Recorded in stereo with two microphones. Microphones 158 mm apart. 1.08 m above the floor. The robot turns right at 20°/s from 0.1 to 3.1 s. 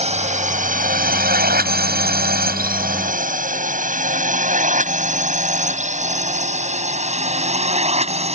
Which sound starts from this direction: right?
A drone, at 0.0 s.